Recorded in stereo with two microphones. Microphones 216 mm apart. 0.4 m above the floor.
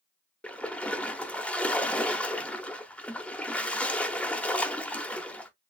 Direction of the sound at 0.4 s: 5° left (ahead or behind).